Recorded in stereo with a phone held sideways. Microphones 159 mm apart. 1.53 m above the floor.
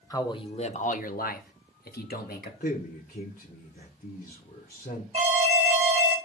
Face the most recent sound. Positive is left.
turn(degrees=-40)  # may be behind; listen again after turning